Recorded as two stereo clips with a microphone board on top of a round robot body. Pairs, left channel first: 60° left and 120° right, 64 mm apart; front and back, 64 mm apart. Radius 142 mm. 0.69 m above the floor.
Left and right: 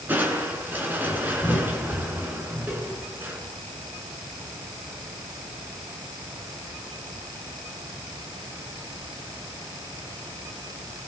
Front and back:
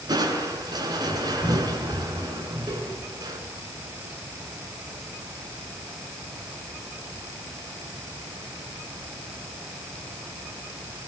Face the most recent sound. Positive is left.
turn(degrees=180)